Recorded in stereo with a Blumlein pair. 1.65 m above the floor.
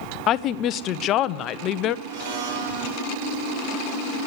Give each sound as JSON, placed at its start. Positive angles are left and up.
{"t": 0.3, "sound": "a woman speaking", "azimuth_deg": 35, "distance_m": 0.5}
{"t": 2.0, "sound": "a blender", "azimuth_deg": -45, "distance_m": 4.0}